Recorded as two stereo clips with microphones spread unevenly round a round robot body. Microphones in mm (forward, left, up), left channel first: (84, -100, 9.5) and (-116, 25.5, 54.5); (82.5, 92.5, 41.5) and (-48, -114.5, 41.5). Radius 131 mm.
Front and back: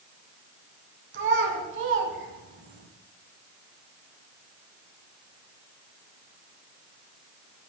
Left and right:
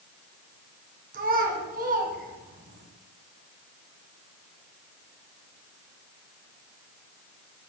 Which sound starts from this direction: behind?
A child speaking, at 1.1 s.